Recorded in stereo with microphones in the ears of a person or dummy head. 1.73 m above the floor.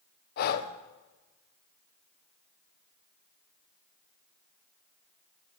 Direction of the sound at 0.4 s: 55° left (ahead or behind).